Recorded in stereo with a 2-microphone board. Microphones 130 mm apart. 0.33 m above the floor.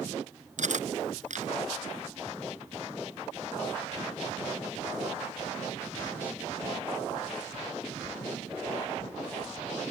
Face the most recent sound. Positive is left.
turn(degrees=-70)  # may be behind; listen again after turning